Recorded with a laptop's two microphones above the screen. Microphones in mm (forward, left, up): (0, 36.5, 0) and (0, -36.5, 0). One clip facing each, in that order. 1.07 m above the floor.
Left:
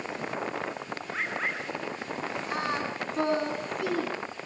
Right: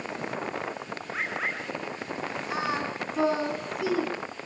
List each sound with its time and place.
1.1 s a bird: 5° right (ahead or behind), 9 m
2.5 s singing: centre (ahead or behind), 2.5 m